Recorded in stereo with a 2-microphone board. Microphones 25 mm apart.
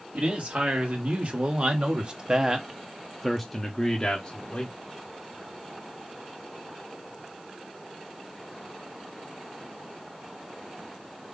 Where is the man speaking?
70° right (ahead or behind), 1.9 m; by 4.7 s 35° left (ahead or behind), 1.1 m.